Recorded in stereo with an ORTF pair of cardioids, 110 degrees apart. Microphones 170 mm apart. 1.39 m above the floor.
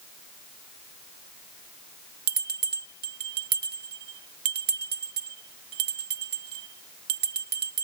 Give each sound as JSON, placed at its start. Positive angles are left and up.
{"t": 2.3, "sound": "a bell", "azimuth_deg": -70}